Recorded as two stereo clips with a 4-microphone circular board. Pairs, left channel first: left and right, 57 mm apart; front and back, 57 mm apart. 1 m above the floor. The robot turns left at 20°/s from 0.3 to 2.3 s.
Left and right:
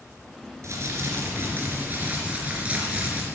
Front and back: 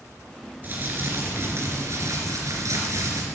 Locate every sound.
0.6 s crumpling: 125° right, 3 m; by 3.2 s 155° right, 3 m